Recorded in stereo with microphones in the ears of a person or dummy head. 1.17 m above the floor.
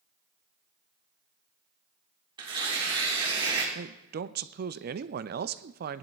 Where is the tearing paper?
25° right (ahead or behind), 3.5 m.